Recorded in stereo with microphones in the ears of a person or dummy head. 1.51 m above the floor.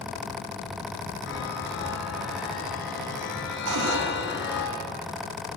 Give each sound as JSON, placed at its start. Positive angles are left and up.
{"t": 1.3, "sound": "a chime", "side_deg": 65, "distance_m": 6.5}
{"t": 3.7, "sound": "a cupboard door", "side_deg": -75, "distance_m": 4.0}